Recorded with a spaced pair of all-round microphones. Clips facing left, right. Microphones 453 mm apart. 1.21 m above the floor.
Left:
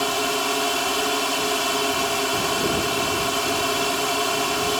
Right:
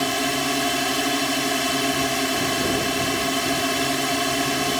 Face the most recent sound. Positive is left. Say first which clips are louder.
# right 1 dB
turn(degrees=-40)  # may be behind; listen again after turning